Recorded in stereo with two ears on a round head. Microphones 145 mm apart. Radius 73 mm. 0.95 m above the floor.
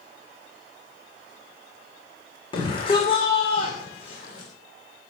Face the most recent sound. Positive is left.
turn(degrees=40)  # may be behind; listen again after turning